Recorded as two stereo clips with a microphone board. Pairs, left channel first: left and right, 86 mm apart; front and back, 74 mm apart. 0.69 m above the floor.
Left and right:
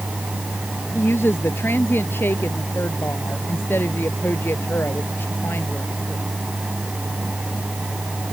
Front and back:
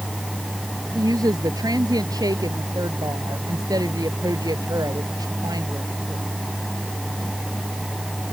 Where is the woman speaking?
150° left.